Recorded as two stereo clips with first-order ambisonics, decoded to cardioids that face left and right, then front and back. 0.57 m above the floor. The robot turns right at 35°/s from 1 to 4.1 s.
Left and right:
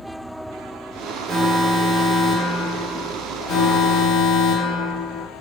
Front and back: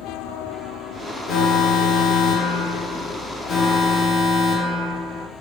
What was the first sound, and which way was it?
An alarm, 30° right.